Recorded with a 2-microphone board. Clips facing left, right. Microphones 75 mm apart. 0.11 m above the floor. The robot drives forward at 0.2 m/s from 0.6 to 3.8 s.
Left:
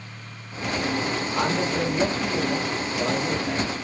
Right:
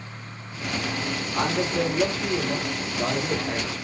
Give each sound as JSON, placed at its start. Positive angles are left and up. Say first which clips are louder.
{"t": 1.3, "sound": "a man speaking", "louder": "right 1 dB", "side_deg": 5, "distance_m": 3.0}